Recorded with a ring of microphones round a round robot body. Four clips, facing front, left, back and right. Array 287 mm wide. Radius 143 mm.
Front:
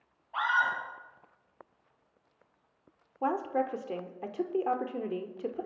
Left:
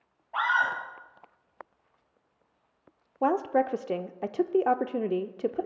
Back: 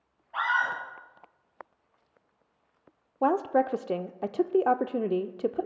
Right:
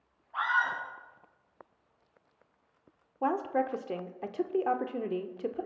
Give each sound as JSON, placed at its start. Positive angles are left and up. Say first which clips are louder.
{"t": 0.3, "sound": "a scream", "louder": "left 3 dB, back 1 dB", "azimuth_deg": 105, "distance_m": 9.5}
{"t": 3.2, "sound": "a woman speaking", "louder": "left 4 dB, back 6 dB", "azimuth_deg": 140, "distance_m": 0.8}